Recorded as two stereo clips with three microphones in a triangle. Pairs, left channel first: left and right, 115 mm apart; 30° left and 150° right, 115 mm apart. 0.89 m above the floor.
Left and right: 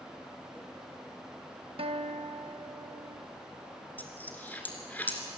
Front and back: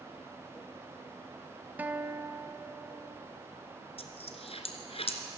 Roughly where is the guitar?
Right.